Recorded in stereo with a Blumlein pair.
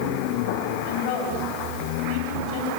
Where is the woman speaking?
40° left, 9.5 m.